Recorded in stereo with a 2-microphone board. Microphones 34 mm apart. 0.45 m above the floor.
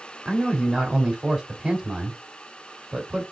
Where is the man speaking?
15° right (ahead or behind), 1.4 m.